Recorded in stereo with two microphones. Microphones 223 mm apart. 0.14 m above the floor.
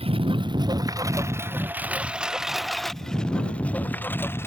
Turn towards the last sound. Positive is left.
turn(degrees=10)  # may be behind; listen again after turning